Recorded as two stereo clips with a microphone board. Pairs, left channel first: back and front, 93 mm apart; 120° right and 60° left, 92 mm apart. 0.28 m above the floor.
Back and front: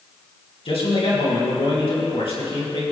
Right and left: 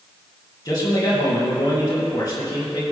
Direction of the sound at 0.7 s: 165° right.